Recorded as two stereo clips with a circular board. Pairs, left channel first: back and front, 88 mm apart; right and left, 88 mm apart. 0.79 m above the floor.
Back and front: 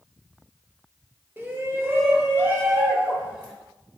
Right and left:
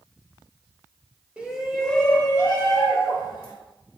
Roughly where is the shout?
Ahead left.